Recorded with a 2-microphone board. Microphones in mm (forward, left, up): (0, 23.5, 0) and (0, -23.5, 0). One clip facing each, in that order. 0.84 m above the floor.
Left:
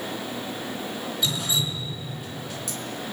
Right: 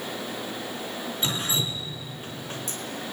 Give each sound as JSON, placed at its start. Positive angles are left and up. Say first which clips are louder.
{"t": 1.2, "sound": "dripping", "louder": "left 1 dB", "side_deg": -35, "distance_m": 4.0}